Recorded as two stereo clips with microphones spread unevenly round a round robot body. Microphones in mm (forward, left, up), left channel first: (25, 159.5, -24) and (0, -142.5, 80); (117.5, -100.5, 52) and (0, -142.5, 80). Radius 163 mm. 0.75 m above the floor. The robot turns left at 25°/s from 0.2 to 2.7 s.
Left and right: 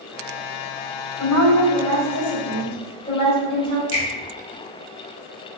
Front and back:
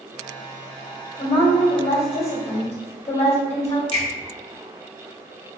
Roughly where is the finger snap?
Ahead left.